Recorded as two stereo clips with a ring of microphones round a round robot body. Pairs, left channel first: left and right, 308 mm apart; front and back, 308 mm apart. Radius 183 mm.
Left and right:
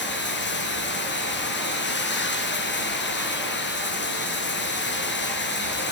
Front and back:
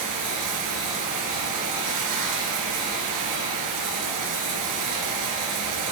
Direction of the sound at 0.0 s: 145° left.